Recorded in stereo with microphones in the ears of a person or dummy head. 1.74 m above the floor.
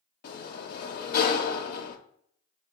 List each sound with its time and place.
0.2 s a sliding door: 55° left (ahead or behind), 0.6 m